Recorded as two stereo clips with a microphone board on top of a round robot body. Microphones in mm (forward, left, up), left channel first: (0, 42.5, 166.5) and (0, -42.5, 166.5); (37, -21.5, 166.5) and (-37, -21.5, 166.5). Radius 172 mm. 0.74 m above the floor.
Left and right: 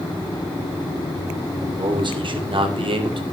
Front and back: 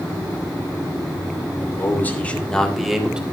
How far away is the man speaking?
About 3 m.